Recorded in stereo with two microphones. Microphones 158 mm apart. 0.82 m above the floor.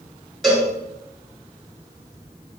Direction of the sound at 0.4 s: Centre (ahead or behind).